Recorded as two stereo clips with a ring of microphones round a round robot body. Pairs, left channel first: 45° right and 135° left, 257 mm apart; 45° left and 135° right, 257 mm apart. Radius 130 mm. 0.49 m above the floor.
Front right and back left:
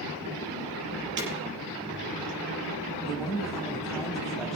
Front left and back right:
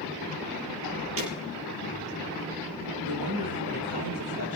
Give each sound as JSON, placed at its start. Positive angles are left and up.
{"t": 1.2, "sound": "breaking glass", "azimuth_deg": -175, "distance_m": 5.0}
{"t": 3.0, "sound": "a woman speaking", "azimuth_deg": -135, "distance_m": 2.5}